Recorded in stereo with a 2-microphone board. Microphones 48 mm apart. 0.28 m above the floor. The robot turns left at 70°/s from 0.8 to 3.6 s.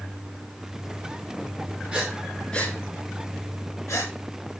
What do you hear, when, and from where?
1.9 s breathing: 25° right (ahead or behind), 4 m; by 4.1 s 75° left (ahead or behind), 4 m